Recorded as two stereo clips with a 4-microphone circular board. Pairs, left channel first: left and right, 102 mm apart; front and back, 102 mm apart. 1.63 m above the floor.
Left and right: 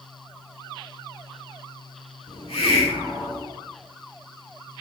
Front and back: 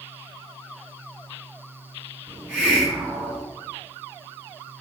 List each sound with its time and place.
2.3 s a hiss: 100° left, 3 m